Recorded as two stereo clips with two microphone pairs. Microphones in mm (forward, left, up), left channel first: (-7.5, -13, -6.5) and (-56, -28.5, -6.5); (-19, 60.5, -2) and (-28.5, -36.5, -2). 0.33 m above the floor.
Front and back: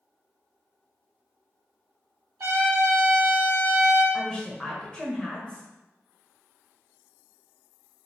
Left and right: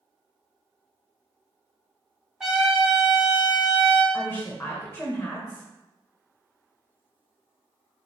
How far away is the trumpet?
About 0.8 m.